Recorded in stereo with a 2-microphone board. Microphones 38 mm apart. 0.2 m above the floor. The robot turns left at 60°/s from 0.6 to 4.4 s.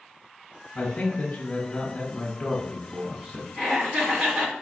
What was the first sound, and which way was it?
A man speaking, 140° left.